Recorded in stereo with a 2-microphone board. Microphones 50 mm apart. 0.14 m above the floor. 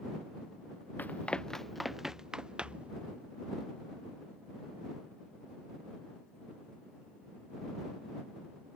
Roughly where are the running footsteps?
Left.